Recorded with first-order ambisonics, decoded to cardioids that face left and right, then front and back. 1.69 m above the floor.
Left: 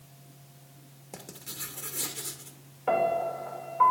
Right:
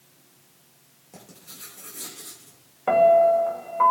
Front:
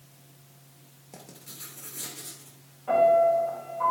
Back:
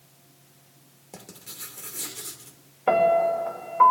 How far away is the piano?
About 1.3 m.